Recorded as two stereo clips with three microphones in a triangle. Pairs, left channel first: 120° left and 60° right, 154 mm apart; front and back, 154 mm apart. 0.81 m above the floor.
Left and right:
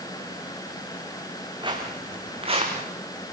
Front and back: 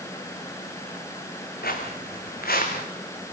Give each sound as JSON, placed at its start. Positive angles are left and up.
{"t": 1.6, "sound": "footsteps", "azimuth_deg": 0, "distance_m": 5.0}